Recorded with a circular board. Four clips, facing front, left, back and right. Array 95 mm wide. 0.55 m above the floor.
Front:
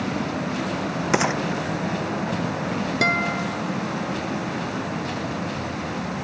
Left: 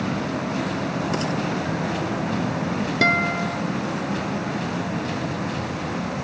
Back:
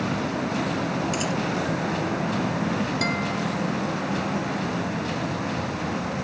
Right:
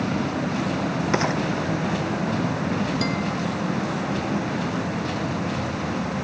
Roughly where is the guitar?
Ahead left.